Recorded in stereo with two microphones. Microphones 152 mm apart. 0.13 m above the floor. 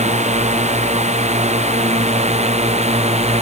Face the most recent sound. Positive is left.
turn(degrees=-45)  # may be behind; listen again after turning